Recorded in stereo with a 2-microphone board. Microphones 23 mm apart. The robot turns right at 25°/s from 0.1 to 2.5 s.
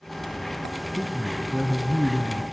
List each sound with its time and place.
1.0 s a man speaking: 175° left, 1.7 m; by 2.4 s 145° right, 1.7 m